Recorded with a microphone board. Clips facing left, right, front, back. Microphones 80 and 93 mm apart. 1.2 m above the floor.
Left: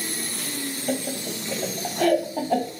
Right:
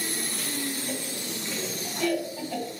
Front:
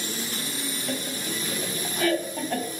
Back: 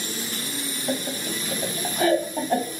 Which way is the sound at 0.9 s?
115° left.